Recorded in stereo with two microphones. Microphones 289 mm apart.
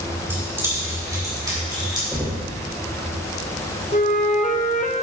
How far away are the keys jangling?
About 3 m.